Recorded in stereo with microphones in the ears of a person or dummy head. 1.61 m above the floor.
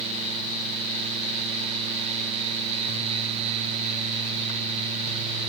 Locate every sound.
Only background noise.